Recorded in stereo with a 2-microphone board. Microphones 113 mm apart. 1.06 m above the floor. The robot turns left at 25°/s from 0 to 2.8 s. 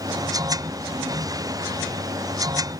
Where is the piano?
No piano in this recording.